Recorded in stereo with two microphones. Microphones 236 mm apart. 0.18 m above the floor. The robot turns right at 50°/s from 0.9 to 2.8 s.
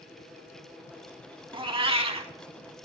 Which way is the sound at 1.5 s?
20° right (ahead or behind).